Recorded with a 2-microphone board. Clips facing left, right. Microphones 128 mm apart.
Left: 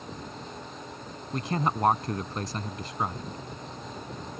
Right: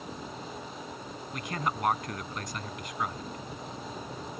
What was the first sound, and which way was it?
A man speaking, 30° left (ahead or behind).